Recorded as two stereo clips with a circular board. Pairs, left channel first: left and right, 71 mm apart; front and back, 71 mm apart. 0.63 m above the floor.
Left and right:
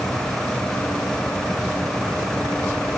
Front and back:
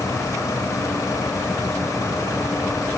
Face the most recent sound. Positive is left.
No sound to turn to.